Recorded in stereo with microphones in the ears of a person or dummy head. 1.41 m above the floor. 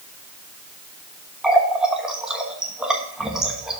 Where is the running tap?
5° right (ahead or behind), 1.1 m.